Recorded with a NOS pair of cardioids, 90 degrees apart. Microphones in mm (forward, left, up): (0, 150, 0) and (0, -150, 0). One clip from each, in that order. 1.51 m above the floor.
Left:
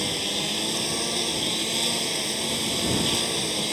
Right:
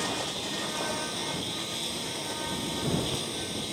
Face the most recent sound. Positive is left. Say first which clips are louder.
# left 5 dB
turn(degrees=55)